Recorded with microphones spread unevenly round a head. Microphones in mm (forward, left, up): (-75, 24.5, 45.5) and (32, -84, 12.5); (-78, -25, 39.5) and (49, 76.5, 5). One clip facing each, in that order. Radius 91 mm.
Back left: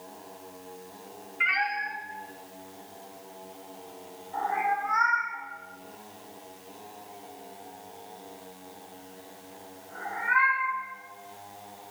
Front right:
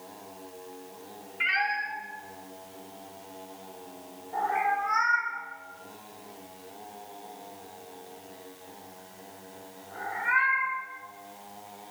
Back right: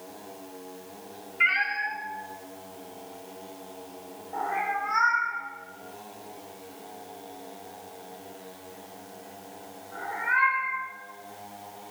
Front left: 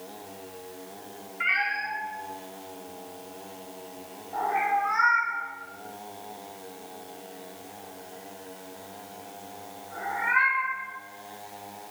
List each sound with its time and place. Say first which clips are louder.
1.4 s a cat meowing: even, even; 115° right, 2 m; by 10.8 s 40° right, 12.5 m